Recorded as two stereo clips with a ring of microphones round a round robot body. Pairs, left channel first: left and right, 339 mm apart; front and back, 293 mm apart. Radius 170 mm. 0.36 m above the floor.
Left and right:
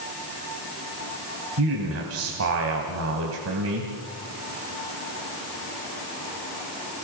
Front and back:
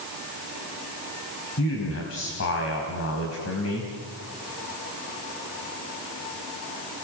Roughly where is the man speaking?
Ahead right.